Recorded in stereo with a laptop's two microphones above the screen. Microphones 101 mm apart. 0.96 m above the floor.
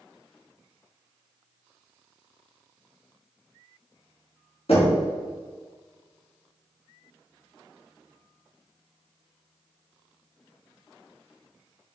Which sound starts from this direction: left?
Knocking, at 4.7 s.